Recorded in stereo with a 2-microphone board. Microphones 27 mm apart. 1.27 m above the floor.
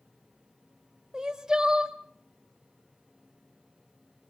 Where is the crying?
25° right (ahead or behind), 1.1 m.